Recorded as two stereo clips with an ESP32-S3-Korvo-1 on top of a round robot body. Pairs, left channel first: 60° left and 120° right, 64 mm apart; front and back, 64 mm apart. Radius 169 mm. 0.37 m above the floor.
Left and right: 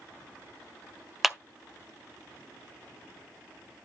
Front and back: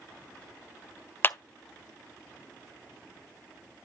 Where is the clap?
35° right, 0.8 m.